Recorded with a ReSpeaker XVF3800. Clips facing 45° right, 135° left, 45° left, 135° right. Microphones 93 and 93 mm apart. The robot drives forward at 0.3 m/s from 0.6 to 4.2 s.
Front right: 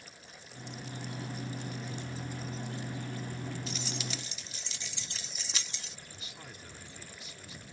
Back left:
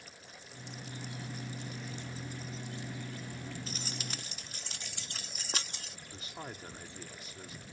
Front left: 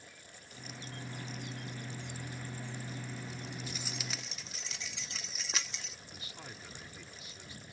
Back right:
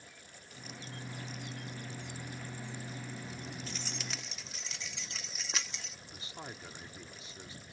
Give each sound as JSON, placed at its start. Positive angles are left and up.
{"t": 3.7, "sound": "keys jangling", "azimuth_deg": 120}
{"t": 6.1, "sound": "a man speaking", "azimuth_deg": 170}